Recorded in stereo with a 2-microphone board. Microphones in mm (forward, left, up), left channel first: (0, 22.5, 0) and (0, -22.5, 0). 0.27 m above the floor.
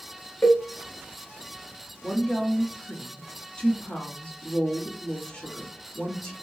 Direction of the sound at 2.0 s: 20° left (ahead or behind).